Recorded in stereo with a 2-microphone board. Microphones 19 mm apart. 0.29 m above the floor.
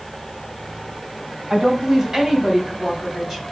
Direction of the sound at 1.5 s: 40° right (ahead or behind).